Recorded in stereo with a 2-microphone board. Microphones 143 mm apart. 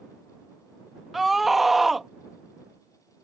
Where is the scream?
Centre (ahead or behind).